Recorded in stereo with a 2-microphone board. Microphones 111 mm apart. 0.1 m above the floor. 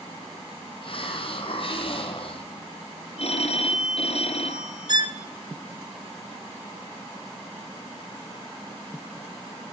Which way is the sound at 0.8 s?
55° left (ahead or behind).